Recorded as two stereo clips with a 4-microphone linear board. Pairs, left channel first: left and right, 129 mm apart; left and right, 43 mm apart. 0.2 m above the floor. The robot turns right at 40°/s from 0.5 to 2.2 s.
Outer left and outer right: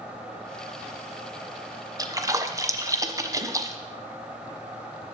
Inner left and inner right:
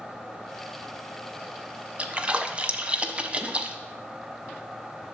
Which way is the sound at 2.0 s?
30° right (ahead or behind).